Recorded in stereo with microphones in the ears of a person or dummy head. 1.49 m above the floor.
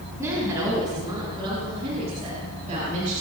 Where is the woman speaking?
20° right (ahead or behind), 6 m; by 3.2 s 55° right (ahead or behind), 6 m.